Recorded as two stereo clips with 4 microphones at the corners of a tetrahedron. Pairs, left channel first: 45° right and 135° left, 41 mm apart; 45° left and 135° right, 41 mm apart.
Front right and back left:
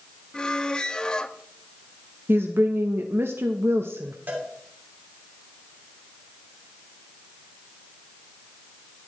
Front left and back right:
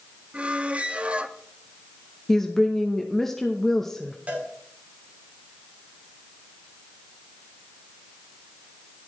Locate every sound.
0.3 s a squeak: 100° right, 0.6 m
2.3 s a woman speaking: 125° left, 0.8 m
4.3 s a cowbell: 170° left, 2.5 m